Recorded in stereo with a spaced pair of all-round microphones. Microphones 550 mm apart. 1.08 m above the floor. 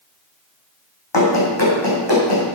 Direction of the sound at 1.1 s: 50° left (ahead or behind).